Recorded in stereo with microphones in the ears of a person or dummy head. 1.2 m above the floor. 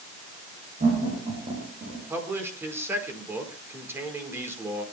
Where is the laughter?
40° right (ahead or behind), 6.5 m.